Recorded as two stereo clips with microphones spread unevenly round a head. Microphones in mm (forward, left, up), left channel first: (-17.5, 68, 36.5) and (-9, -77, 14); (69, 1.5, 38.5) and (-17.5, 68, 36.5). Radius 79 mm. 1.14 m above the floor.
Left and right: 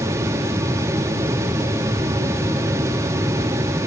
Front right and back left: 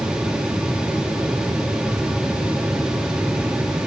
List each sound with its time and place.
Only background noise.